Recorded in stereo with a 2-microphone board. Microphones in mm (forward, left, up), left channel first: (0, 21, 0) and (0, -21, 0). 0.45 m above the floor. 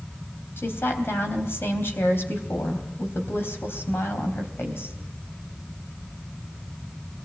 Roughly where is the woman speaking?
Left.